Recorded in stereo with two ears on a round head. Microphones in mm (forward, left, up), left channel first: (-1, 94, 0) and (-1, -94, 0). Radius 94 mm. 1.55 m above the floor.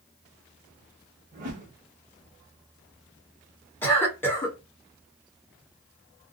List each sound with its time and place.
1.3 s a whoosh: 40° right (ahead or behind), 1.0 m
3.8 s a cough: 10° left (ahead or behind), 1.2 m